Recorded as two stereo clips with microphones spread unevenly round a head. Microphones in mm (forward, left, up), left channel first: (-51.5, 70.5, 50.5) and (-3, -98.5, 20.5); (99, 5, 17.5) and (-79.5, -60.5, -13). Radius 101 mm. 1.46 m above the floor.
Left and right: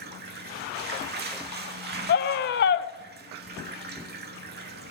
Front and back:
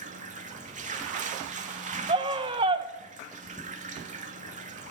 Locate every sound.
0.0 s running water: 105° right, 1.3 m
2.1 s a scream: 130° left, 0.9 m